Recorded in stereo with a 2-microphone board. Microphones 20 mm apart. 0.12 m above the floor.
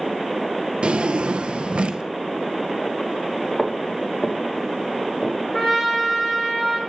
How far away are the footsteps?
About 1.8 m.